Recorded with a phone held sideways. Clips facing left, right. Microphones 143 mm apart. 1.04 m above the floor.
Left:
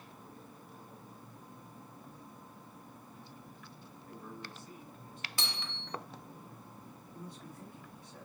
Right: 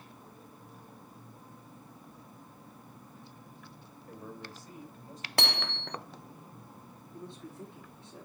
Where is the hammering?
60° right (ahead or behind), 0.6 m.